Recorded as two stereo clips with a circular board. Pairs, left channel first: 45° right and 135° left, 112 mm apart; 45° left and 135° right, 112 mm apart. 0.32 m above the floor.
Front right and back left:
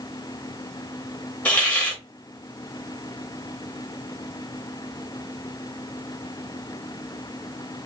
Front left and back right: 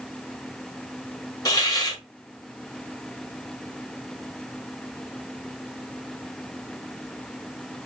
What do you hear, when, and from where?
1.4 s a hiss: 25° left, 1.3 m